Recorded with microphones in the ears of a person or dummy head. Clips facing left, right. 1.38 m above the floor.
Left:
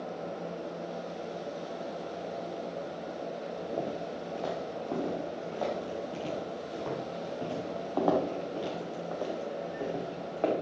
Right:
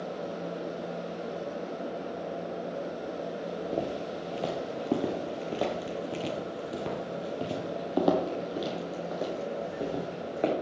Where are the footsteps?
20° right (ahead or behind), 1.6 m.